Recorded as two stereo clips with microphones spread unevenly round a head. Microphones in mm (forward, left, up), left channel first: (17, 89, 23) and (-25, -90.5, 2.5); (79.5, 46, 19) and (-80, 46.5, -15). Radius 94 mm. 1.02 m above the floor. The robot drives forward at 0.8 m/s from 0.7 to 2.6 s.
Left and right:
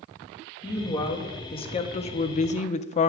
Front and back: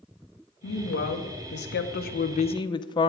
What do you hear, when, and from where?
0.6 s a woman speaking: 10° left, 1.7 m; by 3.1 s 60° left, 0.6 m